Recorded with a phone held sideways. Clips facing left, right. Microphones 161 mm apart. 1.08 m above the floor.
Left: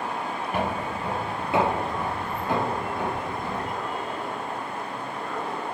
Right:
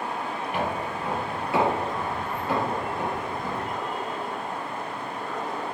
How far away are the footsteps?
About 1.4 m.